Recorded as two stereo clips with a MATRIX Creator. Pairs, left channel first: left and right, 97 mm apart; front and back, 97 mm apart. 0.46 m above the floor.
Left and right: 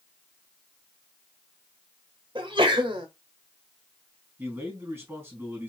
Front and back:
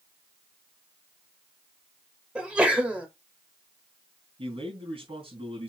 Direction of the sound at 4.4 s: 155° right.